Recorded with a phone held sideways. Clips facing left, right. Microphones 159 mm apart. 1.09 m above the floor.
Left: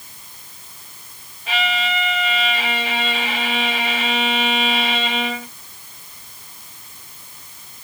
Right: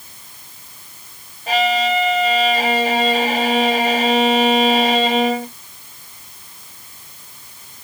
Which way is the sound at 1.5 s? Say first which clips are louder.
Right 7 dB; 45° right (ahead or behind).